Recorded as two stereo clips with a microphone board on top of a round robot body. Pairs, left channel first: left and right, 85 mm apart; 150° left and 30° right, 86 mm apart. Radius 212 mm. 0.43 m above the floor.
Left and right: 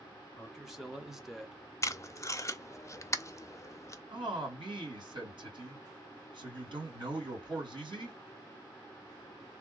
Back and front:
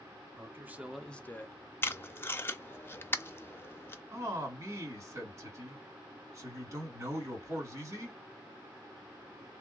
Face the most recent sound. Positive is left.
turn(degrees=-80)